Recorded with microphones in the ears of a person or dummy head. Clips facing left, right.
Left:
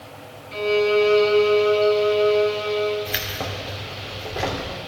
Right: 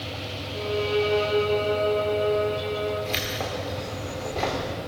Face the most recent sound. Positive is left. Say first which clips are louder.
# right 1 dB
turn(degrees=10)  # may be behind; listen again after turning